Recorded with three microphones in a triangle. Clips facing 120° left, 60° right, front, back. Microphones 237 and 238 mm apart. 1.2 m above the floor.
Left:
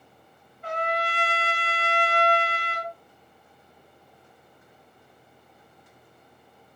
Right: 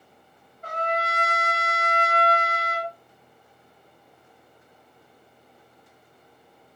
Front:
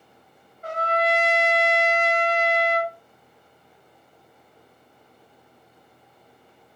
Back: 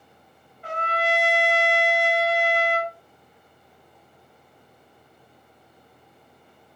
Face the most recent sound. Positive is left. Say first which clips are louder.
# even, front 3 dB
turn(degrees=-30)